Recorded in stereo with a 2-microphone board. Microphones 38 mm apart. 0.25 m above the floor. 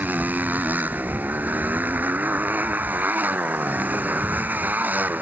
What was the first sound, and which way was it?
A motorcycle, 50° right (ahead or behind).